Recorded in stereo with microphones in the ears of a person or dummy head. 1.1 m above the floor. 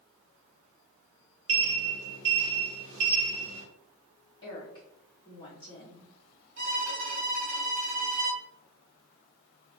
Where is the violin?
45° right (ahead or behind), 1.1 m.